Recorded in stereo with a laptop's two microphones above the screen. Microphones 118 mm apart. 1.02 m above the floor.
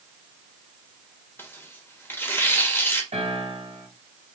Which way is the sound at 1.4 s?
20° left (ahead or behind).